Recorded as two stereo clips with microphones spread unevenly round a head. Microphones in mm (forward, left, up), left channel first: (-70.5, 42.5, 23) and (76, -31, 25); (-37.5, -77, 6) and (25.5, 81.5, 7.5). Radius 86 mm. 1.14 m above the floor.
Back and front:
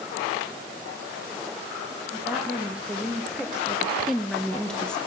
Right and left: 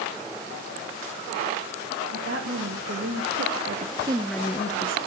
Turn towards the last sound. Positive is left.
turn(degrees=-125)